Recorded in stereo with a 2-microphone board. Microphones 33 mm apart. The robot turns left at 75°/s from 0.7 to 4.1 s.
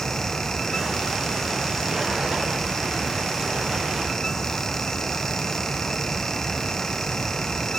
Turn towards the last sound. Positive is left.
No sound to turn to.